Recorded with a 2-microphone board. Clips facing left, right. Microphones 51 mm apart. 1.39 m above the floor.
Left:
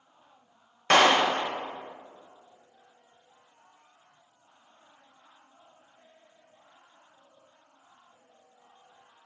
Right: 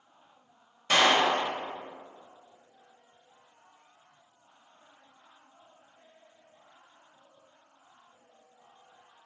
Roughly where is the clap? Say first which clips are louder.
Left 3 dB; left.